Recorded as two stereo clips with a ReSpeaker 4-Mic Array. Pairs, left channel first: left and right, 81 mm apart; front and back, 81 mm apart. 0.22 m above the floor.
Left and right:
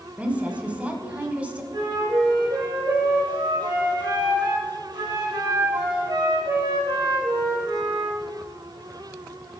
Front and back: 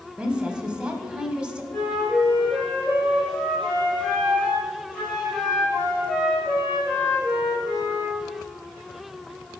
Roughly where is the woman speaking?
Behind right.